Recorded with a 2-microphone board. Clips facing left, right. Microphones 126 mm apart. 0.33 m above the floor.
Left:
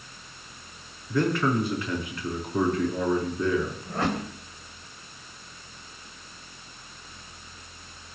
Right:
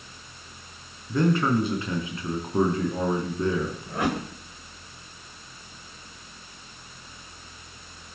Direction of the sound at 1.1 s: 25° right (ahead or behind).